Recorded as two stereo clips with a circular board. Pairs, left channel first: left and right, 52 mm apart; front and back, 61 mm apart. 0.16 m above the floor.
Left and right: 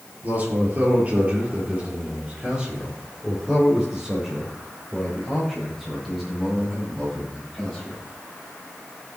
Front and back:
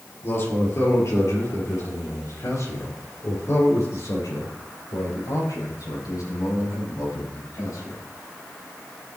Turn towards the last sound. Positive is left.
turn(degrees=5)